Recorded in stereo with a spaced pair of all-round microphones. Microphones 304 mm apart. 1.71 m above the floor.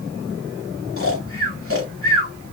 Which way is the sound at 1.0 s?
45° left (ahead or behind).